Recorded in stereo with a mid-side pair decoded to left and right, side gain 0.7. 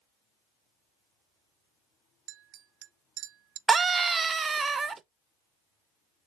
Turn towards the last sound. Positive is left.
turn(degrees=-20)